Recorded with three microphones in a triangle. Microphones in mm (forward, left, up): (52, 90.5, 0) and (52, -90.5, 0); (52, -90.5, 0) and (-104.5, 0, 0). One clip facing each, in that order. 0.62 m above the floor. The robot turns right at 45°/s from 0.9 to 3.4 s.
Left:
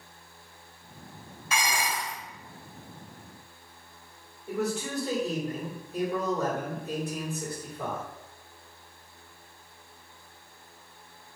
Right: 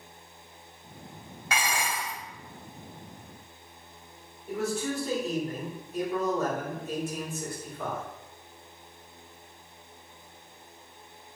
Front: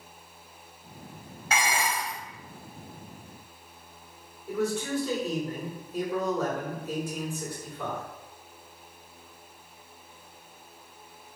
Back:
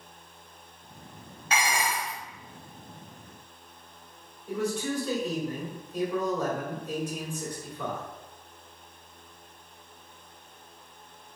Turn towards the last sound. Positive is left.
turn(degrees=50)